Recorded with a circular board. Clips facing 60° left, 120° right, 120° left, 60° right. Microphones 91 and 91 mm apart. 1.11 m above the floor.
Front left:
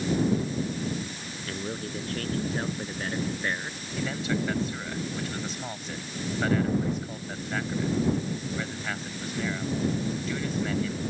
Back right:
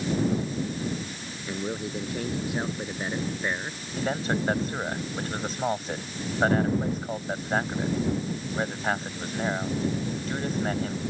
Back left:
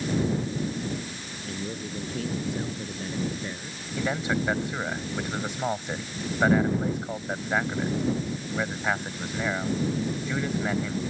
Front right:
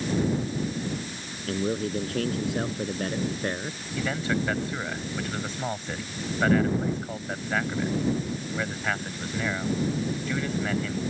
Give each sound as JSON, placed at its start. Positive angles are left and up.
{"t": 1.5, "sound": "a man speaking", "azimuth_deg": -45}
{"t": 4.0, "sound": "a man speaking", "azimuth_deg": -170}